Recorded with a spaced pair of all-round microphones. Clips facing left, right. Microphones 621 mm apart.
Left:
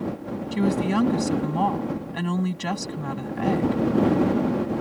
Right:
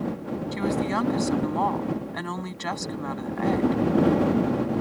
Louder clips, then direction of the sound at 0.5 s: Left 5 dB; 50° left (ahead or behind).